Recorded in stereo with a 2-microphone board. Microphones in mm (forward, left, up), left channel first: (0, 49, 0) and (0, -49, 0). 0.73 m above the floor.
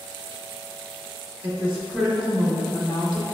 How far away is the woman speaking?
About 0.8 m.